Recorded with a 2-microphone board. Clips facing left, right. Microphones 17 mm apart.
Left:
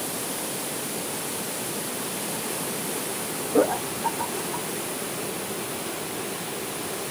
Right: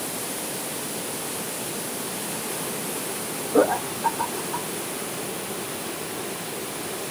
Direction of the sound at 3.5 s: 30° right (ahead or behind).